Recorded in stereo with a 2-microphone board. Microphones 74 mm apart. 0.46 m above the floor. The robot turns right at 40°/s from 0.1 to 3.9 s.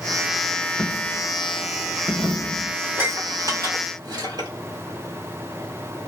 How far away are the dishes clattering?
About 1.3 m.